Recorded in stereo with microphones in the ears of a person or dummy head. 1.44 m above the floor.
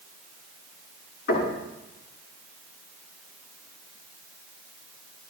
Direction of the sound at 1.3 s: 65° left (ahead or behind).